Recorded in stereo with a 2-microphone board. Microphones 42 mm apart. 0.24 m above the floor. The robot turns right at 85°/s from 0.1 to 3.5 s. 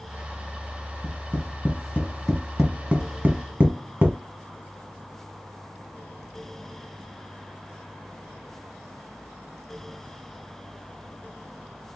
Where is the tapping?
45° left (ahead or behind), 1.3 m; by 4.2 s 55° right (ahead or behind), 1.3 m.